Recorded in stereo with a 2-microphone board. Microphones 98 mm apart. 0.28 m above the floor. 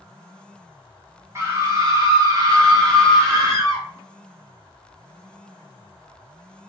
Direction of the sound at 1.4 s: 30° right (ahead or behind).